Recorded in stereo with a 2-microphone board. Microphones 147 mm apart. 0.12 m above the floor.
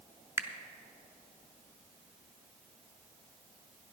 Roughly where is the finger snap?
Centre.